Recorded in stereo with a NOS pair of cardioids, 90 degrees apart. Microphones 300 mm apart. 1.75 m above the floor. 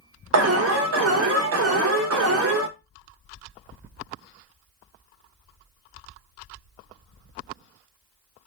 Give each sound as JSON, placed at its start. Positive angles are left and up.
{"t": 0.3, "sound": "an alarm", "azimuth_deg": -50, "distance_m": 0.9}